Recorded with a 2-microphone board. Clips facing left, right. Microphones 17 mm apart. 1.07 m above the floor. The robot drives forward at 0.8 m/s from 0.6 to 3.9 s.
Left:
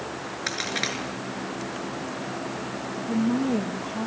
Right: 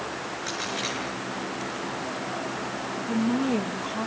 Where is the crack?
50° left (ahead or behind), 7.5 m.